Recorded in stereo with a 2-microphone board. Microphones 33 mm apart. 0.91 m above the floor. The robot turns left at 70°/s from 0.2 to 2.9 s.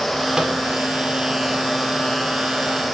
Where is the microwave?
25° right (ahead or behind), 2 m; by 0.6 s 40° right (ahead or behind), 2 m.